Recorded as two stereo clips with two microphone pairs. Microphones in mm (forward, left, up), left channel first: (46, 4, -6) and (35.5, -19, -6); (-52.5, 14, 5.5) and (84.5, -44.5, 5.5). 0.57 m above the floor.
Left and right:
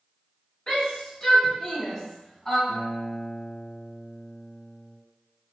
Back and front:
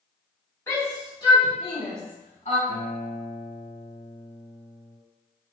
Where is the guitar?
95° left, 2.0 m.